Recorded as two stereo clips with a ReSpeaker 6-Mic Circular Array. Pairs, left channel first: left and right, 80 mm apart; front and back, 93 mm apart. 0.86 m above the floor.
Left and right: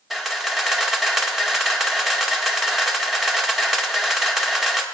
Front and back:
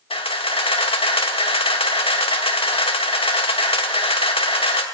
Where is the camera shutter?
Straight ahead, 1.0 m.